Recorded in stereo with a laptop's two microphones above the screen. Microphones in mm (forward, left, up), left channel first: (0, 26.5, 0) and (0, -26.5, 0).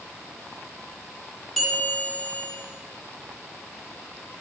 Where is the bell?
5° left (ahead or behind), 1.5 m.